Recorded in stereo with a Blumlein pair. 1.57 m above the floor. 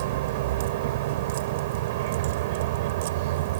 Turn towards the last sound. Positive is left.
turn(degrees=-50)